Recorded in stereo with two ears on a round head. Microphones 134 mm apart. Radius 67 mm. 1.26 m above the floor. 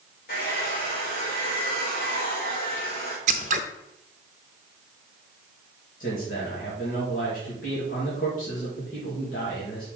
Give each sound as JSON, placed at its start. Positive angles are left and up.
{"t": 0.3, "sound": "a hair dryer", "side_deg": 65, "distance_m": 4.0}
{"t": 3.3, "sound": "scissors", "side_deg": -50, "distance_m": 0.6}
{"t": 6.0, "sound": "a man speaking", "side_deg": 60, "distance_m": 2.0}